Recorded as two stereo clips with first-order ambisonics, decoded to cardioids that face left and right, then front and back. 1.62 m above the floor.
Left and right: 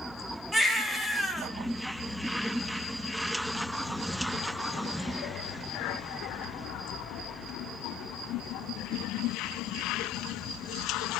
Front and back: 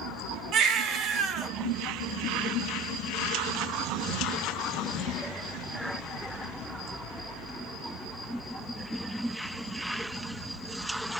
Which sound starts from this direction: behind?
A baby crying, at 0.5 s.